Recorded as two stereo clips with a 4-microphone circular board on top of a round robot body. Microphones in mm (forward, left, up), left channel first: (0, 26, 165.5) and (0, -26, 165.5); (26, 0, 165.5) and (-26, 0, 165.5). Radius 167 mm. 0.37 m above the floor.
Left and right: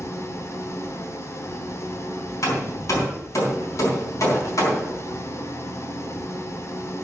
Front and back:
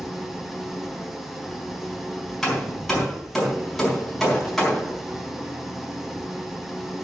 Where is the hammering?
85° left, 4 m.